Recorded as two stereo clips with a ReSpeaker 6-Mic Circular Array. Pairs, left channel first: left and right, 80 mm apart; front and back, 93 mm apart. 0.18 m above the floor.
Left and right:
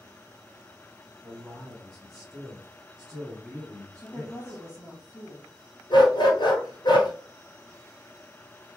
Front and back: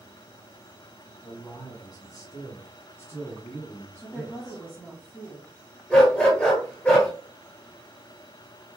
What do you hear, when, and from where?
1.2 s a man speaking: 5° left, 2 m; by 4.6 s 85° right, 1.6 m
4.0 s a woman speaking: 75° left, 1.2 m
5.9 s a dog barking: 75° left, 1.4 m